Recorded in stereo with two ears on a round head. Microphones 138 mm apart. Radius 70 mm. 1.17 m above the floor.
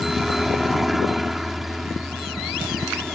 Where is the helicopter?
Centre (ahead or behind).